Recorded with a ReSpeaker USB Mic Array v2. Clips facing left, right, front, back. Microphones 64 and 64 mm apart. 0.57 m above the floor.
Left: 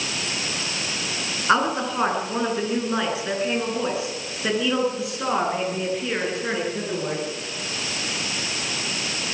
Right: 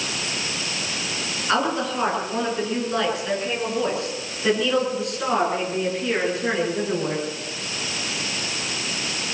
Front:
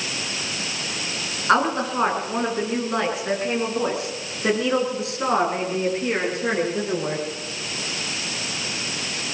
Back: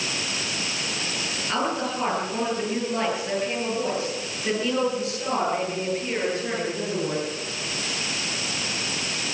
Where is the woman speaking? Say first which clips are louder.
Left 2 dB, front 7 dB; 25° left, 8.5 m; by 7.2 s 5° right, 9.5 m.